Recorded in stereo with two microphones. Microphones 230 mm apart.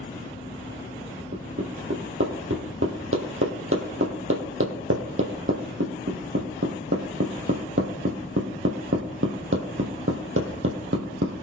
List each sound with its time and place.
1.3 s hammering: 65° right (ahead or behind), 2.5 m